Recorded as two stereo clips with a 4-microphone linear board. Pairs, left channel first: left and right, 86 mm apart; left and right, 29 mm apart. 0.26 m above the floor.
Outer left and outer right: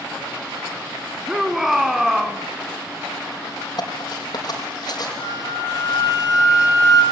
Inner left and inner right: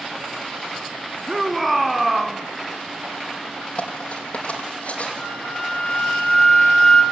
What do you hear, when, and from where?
1.3 s a shout: 5° right (ahead or behind), 2 m
3.8 s cutlery clinking: 50° left (ahead or behind), 5.5 m
5.2 s a flute: 45° left (ahead or behind), 4 m